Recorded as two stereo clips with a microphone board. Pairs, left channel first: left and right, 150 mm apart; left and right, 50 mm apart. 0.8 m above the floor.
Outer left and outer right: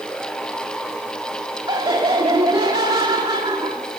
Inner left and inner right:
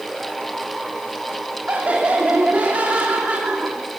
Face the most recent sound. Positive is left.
turn(degrees=-30)  # may be behind; listen again after turning